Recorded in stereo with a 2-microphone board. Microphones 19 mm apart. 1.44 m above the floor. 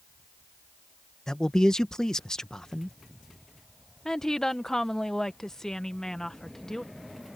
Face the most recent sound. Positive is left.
turn(degrees=25)  # may be behind; listen again after turning